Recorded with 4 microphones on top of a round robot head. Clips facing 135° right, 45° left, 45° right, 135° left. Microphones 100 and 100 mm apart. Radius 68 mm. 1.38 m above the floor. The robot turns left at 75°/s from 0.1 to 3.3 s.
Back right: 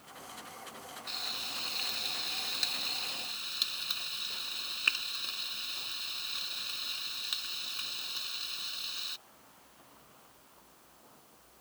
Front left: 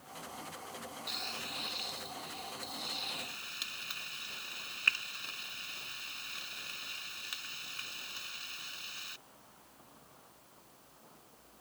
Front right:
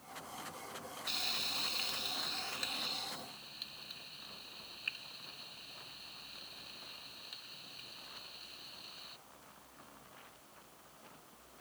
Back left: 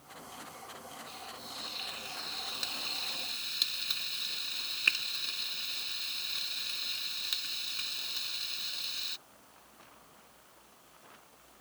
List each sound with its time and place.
1.1 s frying: 40° right; by 9.2 s 150° left